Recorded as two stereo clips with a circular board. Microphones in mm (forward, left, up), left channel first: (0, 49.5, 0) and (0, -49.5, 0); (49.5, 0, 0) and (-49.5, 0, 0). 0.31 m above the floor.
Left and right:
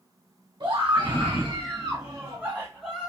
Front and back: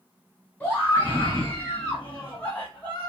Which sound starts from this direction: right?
A scream, at 0.6 s.